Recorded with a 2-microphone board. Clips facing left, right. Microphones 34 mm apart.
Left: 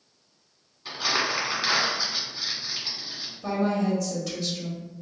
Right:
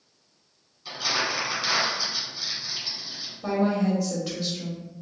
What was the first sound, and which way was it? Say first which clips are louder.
Crumpling: left 1 dB; 25° left (ahead or behind).